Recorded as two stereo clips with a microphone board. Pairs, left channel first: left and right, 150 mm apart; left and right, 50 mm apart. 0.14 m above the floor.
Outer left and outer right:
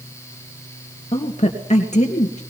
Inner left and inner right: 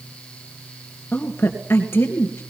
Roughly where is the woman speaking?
Left.